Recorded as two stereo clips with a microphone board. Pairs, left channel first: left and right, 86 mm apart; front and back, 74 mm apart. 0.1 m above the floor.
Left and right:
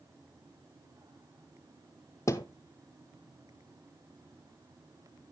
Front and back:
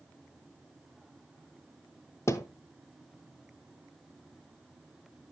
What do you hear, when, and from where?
2.3 s a thud: 40° left, 1.2 m